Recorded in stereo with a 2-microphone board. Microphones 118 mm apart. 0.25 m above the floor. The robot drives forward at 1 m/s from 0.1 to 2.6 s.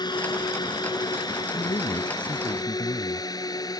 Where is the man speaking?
50° left (ahead or behind); by 3.3 s 40° left (ahead or behind).